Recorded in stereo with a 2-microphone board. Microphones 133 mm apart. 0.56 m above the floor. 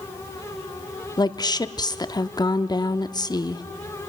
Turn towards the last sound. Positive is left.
turn(degrees=30)  # may be behind; listen again after turning